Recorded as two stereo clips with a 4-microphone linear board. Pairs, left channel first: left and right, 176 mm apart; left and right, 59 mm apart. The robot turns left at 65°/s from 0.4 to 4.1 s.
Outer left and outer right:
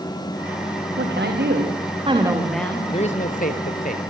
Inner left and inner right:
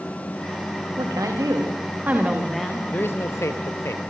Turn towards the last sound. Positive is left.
turn(degrees=60)